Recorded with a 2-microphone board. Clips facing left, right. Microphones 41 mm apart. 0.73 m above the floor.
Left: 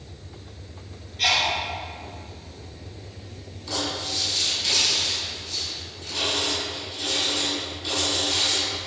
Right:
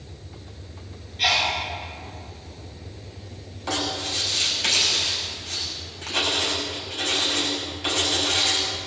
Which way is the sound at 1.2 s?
10° right (ahead or behind).